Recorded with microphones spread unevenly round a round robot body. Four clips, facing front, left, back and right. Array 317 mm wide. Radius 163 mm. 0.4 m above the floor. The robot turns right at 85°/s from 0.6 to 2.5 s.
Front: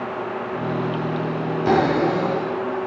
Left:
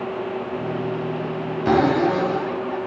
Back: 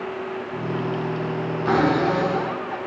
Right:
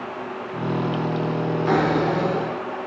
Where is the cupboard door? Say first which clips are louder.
Left 4 dB, front 1 dB; 60° left, 2.5 m; by 2.8 s 130° left, 2.5 m.